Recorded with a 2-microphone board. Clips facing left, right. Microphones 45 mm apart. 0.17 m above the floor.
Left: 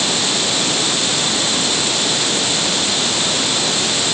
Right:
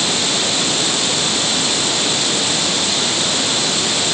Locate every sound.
Only background noise.